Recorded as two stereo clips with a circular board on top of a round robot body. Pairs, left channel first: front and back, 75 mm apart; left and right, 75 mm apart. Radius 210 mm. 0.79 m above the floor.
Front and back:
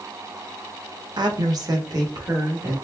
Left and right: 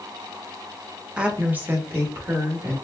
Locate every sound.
1.2 s a woman speaking: 165° right, 1.0 m; by 2.7 s 145° right, 2.5 m